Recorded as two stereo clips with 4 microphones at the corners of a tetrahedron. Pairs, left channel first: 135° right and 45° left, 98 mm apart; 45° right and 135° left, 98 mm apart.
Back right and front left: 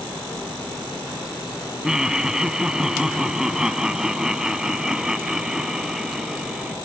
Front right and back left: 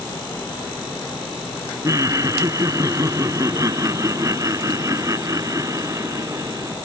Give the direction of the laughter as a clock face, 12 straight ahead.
8 o'clock.